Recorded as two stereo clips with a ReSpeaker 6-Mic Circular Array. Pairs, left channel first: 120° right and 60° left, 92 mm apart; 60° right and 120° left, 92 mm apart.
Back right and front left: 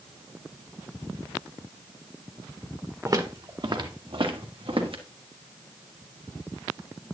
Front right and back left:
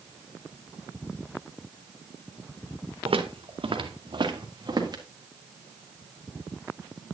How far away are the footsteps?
About 1.7 m.